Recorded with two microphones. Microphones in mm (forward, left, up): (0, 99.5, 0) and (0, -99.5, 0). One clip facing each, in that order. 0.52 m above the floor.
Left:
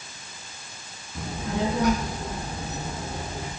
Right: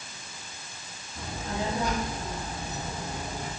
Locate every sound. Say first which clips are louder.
1.1 s a child speaking: left 5 dB; 80° left, 3.5 m; by 3.5 s 75° left (ahead or behind), 5 m